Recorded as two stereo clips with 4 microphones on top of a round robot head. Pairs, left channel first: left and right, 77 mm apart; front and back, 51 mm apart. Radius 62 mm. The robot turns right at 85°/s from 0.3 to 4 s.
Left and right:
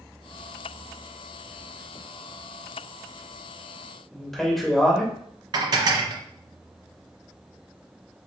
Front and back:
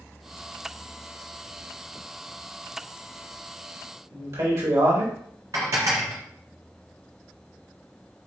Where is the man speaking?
175° left, 2.0 m.